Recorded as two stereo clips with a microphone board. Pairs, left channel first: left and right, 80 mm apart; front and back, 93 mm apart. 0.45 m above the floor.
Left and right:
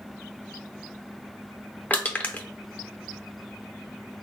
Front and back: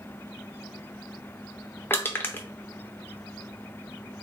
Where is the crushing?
45° left, 0.6 m.